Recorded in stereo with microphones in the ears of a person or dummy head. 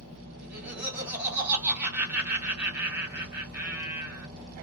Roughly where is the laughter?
Centre.